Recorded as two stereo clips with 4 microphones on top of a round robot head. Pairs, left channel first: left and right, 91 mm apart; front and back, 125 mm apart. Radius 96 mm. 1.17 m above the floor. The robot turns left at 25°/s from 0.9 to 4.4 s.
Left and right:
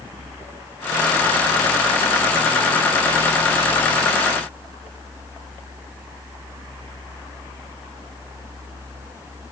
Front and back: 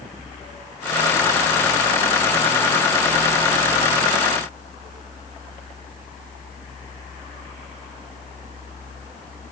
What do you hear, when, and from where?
Only background noise.